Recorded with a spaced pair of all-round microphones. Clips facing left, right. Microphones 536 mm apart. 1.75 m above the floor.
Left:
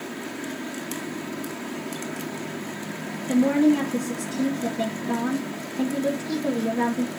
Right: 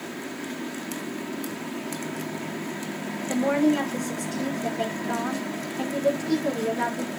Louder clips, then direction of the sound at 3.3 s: Left 4 dB; 60° left (ahead or behind).